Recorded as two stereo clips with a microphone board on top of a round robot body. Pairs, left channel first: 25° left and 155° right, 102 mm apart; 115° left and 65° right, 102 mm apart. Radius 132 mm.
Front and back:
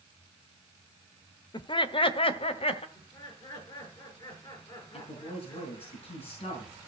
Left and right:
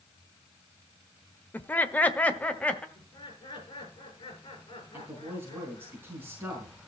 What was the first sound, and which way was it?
Laughter, 45° left.